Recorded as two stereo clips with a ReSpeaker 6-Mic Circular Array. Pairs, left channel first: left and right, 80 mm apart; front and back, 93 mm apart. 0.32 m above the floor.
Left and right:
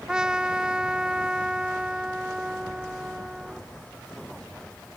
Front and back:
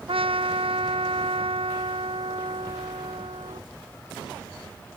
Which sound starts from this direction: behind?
A trumpet, at 0.1 s.